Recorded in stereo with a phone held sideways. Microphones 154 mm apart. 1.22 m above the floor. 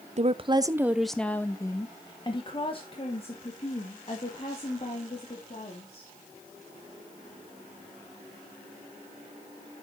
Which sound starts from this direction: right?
A woman speaking, at 0.2 s.